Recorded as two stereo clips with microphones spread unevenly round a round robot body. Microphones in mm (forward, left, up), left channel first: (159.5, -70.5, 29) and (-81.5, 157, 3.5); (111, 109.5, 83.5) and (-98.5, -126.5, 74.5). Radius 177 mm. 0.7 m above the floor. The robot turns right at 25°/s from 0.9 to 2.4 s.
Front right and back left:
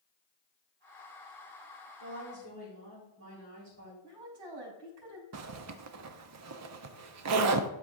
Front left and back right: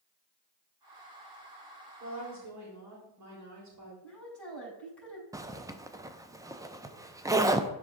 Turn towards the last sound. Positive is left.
turn(degrees=150)